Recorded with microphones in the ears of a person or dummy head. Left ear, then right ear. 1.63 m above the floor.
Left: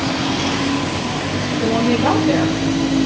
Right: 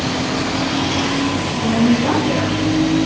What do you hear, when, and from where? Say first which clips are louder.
1.6 s a woman speaking: left 1 dB; 80° left, 9 m